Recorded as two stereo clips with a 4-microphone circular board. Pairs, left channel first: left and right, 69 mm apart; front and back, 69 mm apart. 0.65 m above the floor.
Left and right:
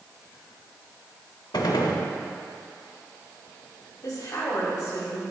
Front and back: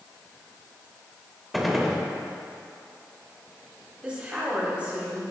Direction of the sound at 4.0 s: 110° left.